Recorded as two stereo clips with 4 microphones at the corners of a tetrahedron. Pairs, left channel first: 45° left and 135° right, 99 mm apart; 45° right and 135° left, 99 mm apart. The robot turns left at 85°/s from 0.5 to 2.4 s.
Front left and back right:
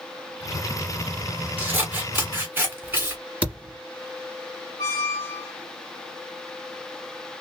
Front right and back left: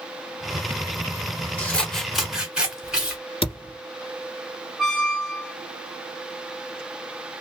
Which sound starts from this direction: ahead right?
A thud, at 3.4 s.